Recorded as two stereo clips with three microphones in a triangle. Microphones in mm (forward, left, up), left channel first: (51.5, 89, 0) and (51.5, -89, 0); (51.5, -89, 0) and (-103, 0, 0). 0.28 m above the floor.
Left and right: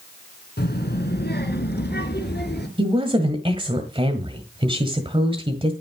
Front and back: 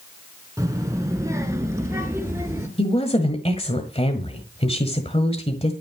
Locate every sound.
0.6 s a child speaking: 80° left, 2.5 m; by 2.7 s 75° left, 4 m
2.8 s a woman speaking: 55° right, 1.6 m